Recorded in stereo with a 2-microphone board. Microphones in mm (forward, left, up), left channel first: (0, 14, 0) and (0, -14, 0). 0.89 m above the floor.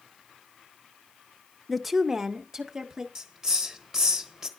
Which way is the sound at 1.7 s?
Centre (ahead or behind).